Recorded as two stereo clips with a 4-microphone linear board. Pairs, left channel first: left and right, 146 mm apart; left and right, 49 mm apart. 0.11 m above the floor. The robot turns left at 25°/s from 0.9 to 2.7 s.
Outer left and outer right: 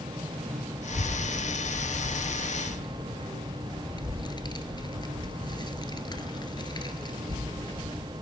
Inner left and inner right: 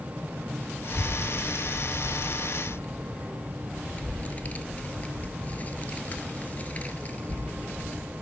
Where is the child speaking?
50° left (ahead or behind), 1.1 m; by 8.1 s 30° left (ahead or behind), 1.1 m.